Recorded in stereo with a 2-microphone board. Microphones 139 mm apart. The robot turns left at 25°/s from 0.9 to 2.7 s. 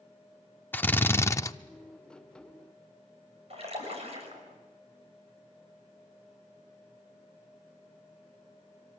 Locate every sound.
0.7 s a drill: 15° left (ahead or behind), 0.6 m; by 1.5 s 25° left (ahead or behind), 0.6 m
3.5 s a splash: 50° right (ahead or behind), 5.5 m